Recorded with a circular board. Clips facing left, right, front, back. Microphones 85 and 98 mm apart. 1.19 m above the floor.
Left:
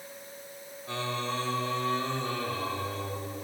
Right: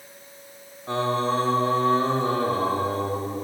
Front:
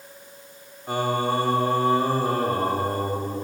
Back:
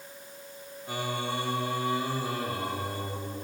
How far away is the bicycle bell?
I don't hear a bicycle bell.